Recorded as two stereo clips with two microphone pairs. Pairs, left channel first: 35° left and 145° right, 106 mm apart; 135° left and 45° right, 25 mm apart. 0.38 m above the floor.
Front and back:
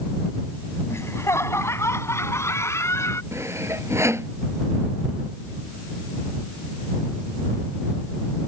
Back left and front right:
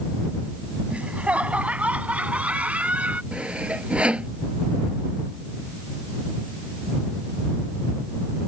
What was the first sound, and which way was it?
Laughter, 30° right.